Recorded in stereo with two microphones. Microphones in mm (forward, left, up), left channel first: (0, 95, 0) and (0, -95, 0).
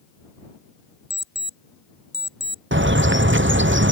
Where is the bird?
85° right.